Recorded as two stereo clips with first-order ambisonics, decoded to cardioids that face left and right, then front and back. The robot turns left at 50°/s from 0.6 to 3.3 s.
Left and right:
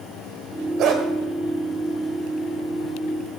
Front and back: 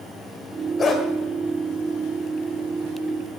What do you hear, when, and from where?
0.8 s a dog barking: 60° right, 1.5 m; by 1.0 s 70° right, 1.5 m